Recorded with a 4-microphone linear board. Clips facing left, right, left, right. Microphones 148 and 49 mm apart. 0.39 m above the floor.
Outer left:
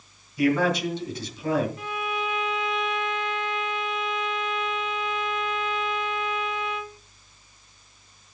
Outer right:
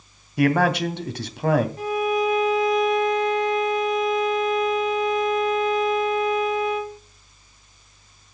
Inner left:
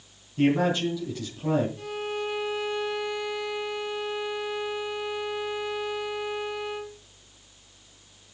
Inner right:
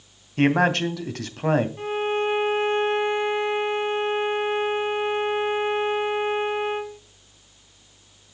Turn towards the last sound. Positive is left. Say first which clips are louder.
# outer right 9 dB, inner right 7 dB
turn(degrees=-40)  # may be behind; listen again after turning